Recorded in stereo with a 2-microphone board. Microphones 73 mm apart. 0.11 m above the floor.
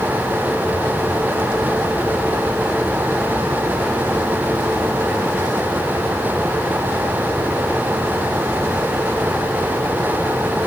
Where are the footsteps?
I don't hear footsteps.